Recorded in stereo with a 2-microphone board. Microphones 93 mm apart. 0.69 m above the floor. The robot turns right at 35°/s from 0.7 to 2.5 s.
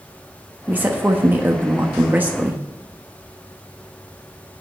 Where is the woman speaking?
20° right (ahead or behind), 1.0 m; by 2.6 s 15° right (ahead or behind), 1.0 m.